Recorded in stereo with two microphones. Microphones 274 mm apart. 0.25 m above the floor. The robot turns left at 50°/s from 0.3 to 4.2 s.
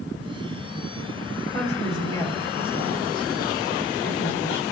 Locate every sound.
1.5 s a woman speaking: 5° left (ahead or behind), 1.4 m; by 4.6 s 10° left (ahead or behind), 1.4 m